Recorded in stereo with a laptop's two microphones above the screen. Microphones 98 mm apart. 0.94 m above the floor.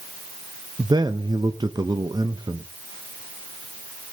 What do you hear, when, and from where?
0.8 s a man speaking: 45° right (ahead or behind), 0.6 m